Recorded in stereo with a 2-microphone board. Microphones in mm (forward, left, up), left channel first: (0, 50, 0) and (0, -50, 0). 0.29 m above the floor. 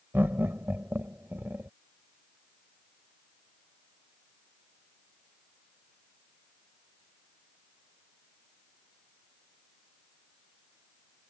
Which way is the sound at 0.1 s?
20° right (ahead or behind).